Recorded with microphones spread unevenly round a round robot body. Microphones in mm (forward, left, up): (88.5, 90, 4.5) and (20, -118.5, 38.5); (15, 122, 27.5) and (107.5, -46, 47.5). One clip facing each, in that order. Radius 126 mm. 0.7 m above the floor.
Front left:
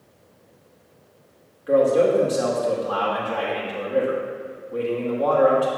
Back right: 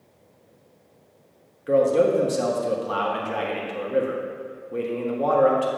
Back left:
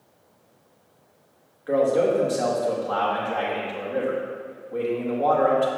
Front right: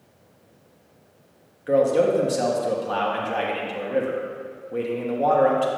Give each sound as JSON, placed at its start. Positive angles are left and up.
{"t": 1.7, "sound": "a man speaking", "azimuth_deg": -100, "distance_m": 1.1}